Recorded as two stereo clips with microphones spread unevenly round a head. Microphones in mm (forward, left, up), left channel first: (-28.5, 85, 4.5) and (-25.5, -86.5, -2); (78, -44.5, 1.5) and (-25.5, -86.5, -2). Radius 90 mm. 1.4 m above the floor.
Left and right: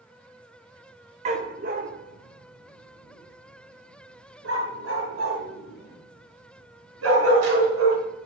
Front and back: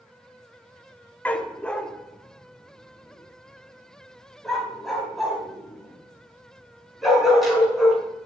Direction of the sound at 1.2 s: 50° right.